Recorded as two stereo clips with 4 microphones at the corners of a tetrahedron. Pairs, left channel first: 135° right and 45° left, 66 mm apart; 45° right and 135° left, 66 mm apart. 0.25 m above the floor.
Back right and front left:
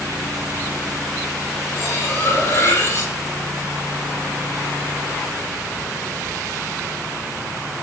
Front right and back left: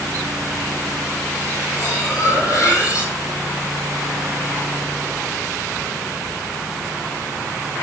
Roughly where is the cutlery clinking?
Right.